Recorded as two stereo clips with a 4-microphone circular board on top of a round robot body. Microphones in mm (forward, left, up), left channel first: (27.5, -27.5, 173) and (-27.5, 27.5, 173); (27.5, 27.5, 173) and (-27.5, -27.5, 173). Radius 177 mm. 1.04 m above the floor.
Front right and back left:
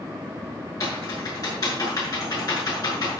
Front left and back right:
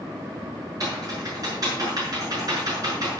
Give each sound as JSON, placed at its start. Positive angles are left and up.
{"t": 0.8, "sound": "typing on a keyboard", "azimuth_deg": -90, "distance_m": 6.5}